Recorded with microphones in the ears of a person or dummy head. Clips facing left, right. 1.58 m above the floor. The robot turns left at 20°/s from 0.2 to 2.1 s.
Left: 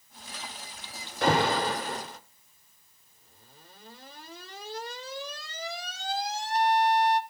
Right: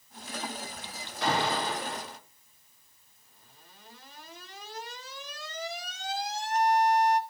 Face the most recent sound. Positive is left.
turn(degrees=35)  # may be behind; listen again after turning